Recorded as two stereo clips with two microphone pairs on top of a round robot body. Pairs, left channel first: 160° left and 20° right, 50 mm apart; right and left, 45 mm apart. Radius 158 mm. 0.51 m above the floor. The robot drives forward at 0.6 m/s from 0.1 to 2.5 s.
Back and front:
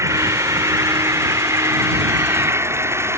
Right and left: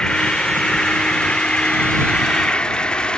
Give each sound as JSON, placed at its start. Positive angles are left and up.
{"t": 0.0, "sound": "an insect", "azimuth_deg": -20}